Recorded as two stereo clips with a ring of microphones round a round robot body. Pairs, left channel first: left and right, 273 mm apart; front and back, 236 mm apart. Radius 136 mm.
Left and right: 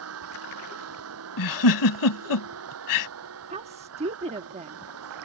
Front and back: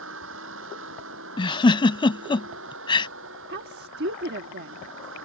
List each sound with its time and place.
0.0 s a vehicle: 130° right
1.4 s a giggle: 70° left
3.5 s a woman speaking: 150° right